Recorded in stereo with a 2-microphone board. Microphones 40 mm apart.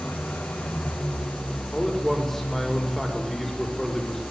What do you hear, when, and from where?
0.0 s an engine running: 70° left (ahead or behind), 6.5 m
1.7 s a man speaking: 5° left (ahead or behind), 6 m